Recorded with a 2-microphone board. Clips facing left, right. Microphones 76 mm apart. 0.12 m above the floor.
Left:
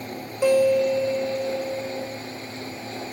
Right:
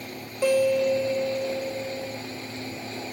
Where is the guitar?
10° left (ahead or behind), 1.0 m.